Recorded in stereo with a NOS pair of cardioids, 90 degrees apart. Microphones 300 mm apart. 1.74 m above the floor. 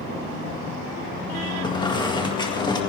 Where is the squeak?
15° left, 2 m.